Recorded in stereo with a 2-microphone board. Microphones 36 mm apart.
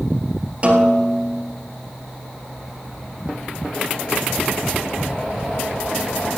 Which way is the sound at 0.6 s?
35° right (ahead or behind).